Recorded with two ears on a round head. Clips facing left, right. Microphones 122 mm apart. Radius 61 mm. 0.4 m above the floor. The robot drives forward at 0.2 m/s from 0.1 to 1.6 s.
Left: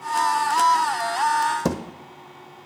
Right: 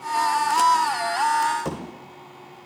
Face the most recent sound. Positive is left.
turn(degrees=55)  # may be behind; listen again after turning